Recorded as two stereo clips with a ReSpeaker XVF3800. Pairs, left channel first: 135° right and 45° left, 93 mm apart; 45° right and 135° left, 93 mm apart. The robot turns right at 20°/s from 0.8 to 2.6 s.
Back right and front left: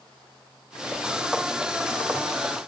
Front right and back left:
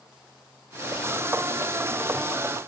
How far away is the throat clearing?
No throat clearing in this recording.